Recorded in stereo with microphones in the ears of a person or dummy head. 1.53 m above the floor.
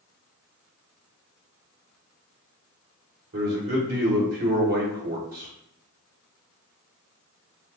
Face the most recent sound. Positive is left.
turn(degrees=-45)  # may be behind; listen again after turning